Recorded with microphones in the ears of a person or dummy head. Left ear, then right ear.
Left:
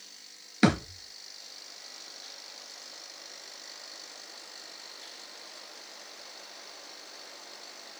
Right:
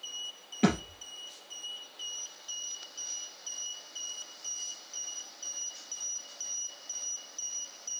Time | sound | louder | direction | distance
0.6 | a thud | left 4 dB | 65° left (ahead or behind) | 3 m